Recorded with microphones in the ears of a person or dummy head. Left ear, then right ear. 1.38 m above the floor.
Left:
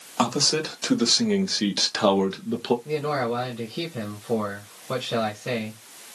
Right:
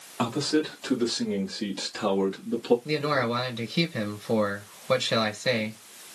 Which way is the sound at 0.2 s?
75° left (ahead or behind).